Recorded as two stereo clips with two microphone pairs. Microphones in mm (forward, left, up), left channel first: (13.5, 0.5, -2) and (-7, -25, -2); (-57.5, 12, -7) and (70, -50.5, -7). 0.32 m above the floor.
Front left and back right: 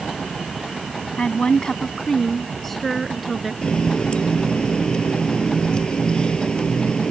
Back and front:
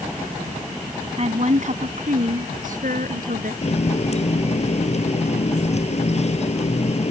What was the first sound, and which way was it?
A woman speaking, 5° left.